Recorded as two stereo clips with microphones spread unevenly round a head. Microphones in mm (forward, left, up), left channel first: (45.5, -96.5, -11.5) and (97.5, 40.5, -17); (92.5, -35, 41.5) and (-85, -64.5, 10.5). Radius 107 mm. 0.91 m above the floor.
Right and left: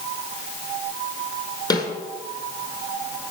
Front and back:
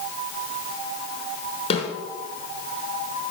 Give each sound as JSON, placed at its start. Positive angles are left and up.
{"t": 1.7, "sound": "a snare drum", "azimuth_deg": -45, "distance_m": 5.5}